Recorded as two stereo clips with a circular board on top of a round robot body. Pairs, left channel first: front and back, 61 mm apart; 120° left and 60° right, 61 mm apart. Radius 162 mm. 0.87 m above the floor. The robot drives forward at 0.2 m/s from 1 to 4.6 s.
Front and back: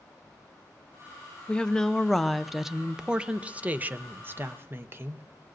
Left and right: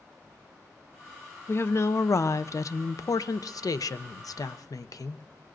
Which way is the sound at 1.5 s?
75° left.